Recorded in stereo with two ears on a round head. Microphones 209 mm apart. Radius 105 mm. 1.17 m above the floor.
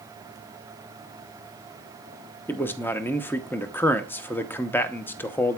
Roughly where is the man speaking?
Centre.